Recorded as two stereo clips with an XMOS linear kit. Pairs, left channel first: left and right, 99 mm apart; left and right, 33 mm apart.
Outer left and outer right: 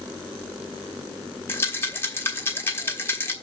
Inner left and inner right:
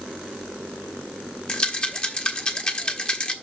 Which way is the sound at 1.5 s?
25° left (ahead or behind).